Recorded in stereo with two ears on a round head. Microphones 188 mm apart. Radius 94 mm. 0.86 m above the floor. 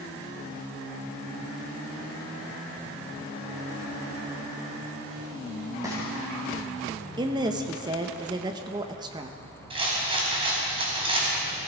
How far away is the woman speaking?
About 0.9 m.